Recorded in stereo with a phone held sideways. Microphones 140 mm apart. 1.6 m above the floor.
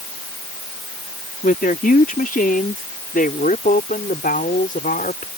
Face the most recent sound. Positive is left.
turn(degrees=90)